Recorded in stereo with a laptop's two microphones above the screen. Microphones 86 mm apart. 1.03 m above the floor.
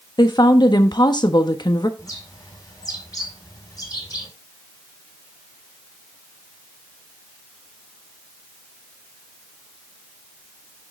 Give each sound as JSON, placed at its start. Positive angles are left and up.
{"t": 0.2, "sound": "a woman speaking", "side_deg": 55, "distance_m": 1.1}
{"t": 2.0, "sound": "a bird", "side_deg": 40, "distance_m": 4.5}